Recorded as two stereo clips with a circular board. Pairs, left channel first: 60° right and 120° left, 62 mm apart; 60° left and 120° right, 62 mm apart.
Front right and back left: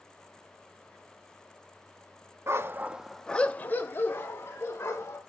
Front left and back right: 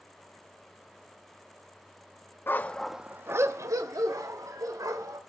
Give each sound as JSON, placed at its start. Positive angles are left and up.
{"t": 2.5, "sound": "a dog barking", "azimuth_deg": 100, "distance_m": 0.6}